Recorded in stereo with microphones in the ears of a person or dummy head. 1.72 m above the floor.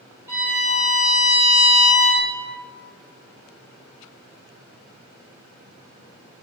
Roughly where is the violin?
Centre.